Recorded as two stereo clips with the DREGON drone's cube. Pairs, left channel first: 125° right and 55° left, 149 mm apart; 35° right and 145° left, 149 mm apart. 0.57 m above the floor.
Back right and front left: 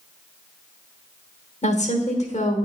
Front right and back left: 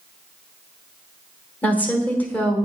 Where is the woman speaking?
110° right, 1.2 m.